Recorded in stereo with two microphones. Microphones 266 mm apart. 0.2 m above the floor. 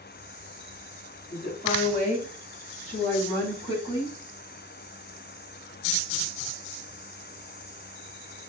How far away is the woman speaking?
About 1.6 m.